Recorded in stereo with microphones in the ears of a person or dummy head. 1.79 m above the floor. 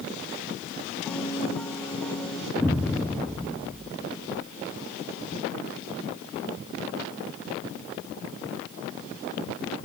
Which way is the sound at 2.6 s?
Centre (ahead or behind).